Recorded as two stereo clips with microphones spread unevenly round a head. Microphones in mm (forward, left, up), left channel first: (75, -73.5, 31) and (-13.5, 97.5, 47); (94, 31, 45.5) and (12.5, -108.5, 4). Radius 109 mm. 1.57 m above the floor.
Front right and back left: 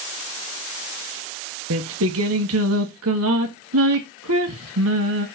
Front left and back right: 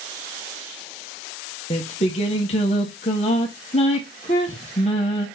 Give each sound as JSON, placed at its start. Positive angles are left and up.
{"t": 1.7, "sound": "singing", "azimuth_deg": 125, "distance_m": 1.6}